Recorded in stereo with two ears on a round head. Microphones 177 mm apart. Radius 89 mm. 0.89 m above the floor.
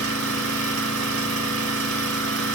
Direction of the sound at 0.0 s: 75° right (ahead or behind).